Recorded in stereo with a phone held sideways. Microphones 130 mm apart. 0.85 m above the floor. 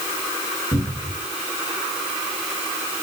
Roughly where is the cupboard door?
Centre.